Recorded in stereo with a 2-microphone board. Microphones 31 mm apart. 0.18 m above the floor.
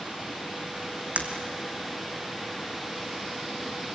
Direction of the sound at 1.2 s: 45° right (ahead or behind).